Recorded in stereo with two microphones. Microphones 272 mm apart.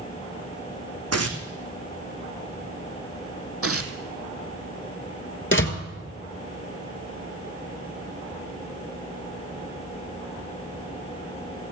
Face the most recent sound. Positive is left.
turn(degrees=45)  # may be behind; listen again after turning